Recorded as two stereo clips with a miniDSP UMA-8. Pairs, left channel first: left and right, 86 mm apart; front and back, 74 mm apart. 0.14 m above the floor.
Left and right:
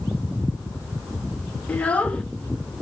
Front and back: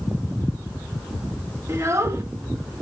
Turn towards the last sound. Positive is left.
turn(degrees=155)